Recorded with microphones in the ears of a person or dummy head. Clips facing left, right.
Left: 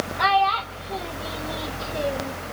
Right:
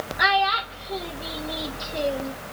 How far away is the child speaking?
About 1.0 m.